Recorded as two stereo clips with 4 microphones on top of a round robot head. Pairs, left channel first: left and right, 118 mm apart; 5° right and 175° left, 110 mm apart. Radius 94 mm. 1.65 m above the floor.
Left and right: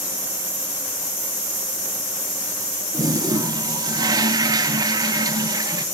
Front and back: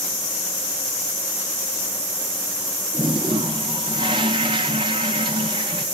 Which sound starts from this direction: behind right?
A toilet flushing, at 2.9 s.